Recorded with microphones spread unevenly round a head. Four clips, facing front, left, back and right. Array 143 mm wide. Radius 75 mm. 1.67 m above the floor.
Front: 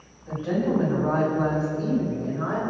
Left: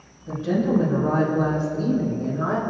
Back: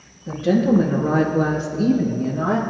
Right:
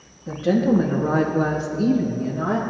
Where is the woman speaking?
135° right, 2.5 m; by 2.6 s 175° left, 1.7 m.